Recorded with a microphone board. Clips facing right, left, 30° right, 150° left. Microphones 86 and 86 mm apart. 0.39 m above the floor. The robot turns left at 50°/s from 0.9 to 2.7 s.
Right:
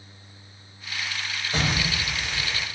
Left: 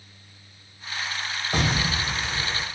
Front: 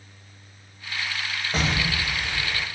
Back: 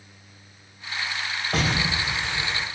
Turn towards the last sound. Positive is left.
turn(degrees=75)